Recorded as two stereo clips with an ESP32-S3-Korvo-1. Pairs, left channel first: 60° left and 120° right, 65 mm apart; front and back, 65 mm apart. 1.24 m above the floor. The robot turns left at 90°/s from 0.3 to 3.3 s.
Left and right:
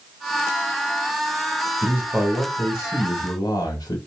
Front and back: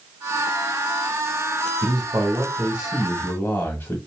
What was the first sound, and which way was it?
A man speaking, 165° right.